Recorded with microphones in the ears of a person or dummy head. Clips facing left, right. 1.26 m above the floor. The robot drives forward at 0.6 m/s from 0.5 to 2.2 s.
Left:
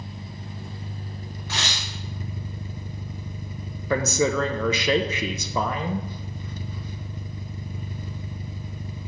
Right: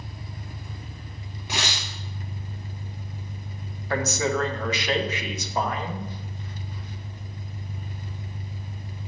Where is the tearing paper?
15° right (ahead or behind), 1.4 m.